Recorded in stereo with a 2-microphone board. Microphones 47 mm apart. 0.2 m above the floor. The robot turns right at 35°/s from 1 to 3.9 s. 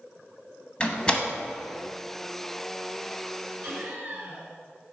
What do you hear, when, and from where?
0.8 s a door slam: 20° left (ahead or behind), 0.9 m
3.6 s laughter: 55° right (ahead or behind), 3 m; by 4.5 s 50° right (ahead or behind), 3 m